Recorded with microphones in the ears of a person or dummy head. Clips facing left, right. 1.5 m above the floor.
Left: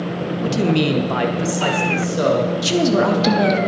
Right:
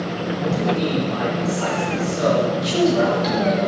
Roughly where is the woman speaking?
Left.